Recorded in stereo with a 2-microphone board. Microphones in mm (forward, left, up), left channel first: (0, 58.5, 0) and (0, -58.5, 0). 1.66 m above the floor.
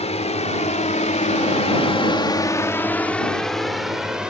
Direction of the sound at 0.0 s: 65° left (ahead or behind).